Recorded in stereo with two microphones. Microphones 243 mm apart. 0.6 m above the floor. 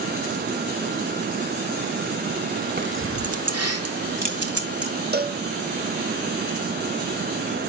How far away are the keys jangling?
About 0.9 m.